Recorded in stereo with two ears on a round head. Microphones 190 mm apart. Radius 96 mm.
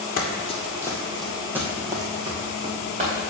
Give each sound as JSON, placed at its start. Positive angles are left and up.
{"t": 0.2, "sound": "running footsteps", "side_deg": 40, "distance_m": 1.3}